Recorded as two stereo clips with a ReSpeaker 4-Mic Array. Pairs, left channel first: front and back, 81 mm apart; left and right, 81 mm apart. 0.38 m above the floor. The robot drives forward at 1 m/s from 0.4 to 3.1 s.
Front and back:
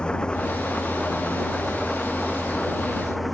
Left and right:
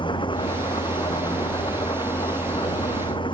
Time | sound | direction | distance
0.0 | an engine running | 80° left | ?